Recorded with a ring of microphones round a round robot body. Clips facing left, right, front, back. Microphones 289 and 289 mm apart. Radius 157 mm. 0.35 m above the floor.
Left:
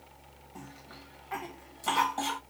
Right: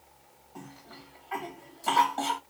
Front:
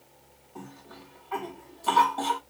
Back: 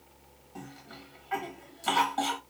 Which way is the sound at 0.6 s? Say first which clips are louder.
Right 2 dB, front 1 dB; 135° left.